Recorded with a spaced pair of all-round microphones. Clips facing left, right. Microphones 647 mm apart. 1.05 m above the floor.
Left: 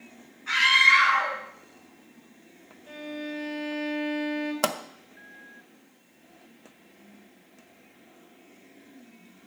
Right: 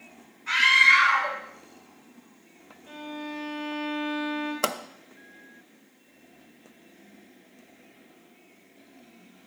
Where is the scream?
5° left (ahead or behind), 8 m.